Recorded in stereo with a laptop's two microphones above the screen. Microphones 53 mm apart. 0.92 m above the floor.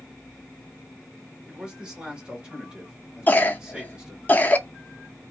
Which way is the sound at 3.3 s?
30° left (ahead or behind).